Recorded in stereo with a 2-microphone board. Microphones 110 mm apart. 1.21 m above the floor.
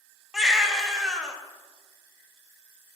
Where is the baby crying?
5° right (ahead or behind), 0.6 m.